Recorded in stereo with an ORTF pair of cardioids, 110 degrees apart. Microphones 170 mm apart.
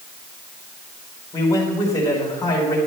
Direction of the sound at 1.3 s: 20° left.